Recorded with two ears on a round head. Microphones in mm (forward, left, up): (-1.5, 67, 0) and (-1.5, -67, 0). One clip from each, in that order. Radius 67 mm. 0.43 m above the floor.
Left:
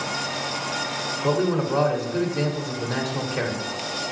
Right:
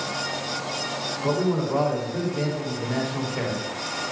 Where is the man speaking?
35° left (ahead or behind), 1.6 m.